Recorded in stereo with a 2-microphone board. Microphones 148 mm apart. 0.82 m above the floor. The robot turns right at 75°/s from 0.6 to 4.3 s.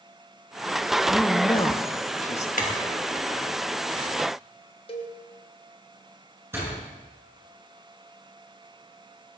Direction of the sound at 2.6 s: 70° left (ahead or behind).